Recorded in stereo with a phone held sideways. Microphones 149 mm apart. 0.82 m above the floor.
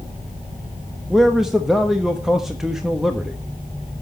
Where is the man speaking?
Centre (ahead or behind), 1.0 m.